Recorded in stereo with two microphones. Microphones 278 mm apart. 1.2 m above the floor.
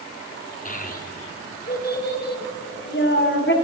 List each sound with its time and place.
0.7 s a child speaking: 30° left (ahead or behind), 2.5 m; by 3.5 s 40° left (ahead or behind), 4 m